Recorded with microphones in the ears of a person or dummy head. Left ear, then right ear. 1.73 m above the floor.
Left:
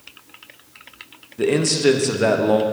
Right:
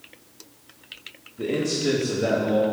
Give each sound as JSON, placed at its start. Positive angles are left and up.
{"t": 1.4, "sound": "a man speaking", "side_deg": 55, "distance_m": 0.8}